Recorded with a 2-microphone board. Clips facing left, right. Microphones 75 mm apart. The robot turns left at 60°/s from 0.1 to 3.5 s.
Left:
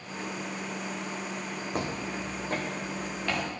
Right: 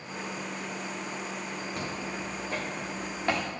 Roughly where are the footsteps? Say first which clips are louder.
Left 5 dB; left.